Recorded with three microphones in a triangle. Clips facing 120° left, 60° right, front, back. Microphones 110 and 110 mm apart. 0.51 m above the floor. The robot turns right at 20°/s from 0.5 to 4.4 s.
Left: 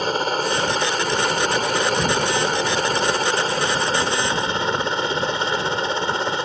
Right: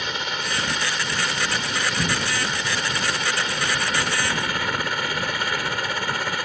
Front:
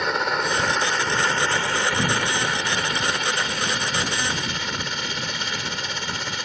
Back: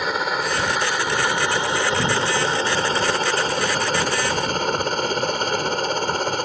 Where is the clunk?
I don't hear a clunk.